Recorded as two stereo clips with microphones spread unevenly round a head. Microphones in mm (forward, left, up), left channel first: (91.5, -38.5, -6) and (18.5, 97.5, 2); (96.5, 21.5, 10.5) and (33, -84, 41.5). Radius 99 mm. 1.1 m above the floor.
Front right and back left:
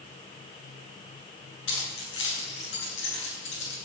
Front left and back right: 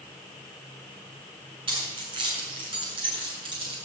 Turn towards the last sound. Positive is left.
turn(degrees=-75)